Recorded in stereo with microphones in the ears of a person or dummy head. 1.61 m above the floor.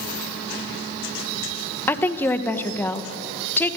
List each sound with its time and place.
1.9 s a woman speaking: 15° left (ahead or behind), 1.4 m